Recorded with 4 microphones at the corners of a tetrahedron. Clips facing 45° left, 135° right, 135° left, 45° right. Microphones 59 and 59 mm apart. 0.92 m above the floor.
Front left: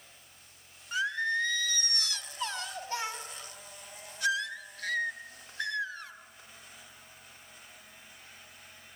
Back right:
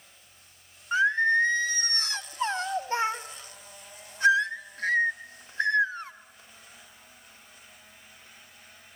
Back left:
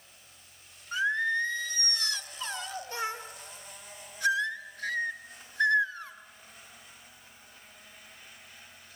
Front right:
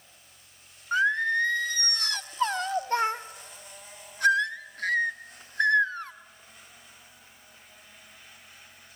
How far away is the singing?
About 0.9 m.